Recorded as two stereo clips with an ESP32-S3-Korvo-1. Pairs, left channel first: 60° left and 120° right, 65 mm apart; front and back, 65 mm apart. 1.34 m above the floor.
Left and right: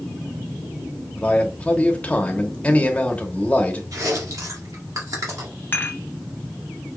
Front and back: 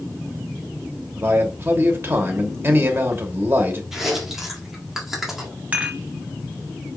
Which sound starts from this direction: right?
Chewing, at 3.9 s.